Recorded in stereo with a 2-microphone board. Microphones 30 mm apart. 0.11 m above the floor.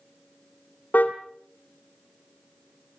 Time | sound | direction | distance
0.9 | a car horn | 70° left (ahead or behind) | 2.5 m